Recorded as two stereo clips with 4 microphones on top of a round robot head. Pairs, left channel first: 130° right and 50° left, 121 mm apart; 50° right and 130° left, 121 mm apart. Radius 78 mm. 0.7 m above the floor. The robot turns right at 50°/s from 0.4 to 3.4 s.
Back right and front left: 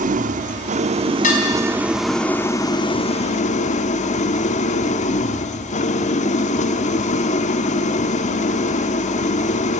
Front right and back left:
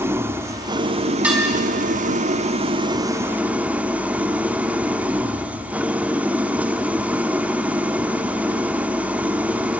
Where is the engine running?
60° left, 1.1 m; by 9.8 s 150° right, 1.1 m.